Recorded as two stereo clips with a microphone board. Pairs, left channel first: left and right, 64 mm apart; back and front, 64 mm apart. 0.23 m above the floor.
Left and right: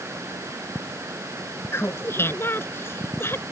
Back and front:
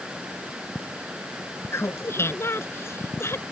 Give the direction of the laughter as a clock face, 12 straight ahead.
7 o'clock.